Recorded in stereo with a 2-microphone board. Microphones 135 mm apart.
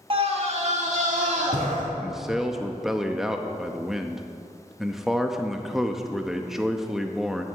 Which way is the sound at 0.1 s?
45° right (ahead or behind).